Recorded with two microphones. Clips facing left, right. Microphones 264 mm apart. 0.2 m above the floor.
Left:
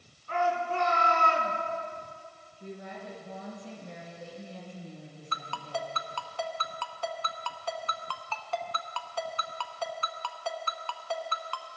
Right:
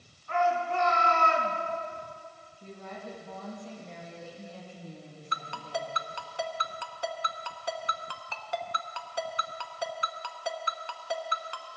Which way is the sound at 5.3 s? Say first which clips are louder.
Even; 15° right (ahead or behind).